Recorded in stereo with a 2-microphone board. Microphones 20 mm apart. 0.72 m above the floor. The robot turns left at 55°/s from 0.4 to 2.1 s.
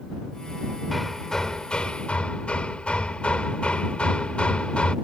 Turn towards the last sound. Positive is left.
turn(degrees=115)